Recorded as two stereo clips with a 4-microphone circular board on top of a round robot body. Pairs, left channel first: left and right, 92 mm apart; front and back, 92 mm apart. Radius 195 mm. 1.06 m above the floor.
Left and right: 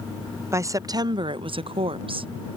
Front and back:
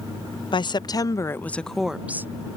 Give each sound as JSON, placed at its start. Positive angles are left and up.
{"t": 0.5, "sound": "a woman speaking", "azimuth_deg": -30}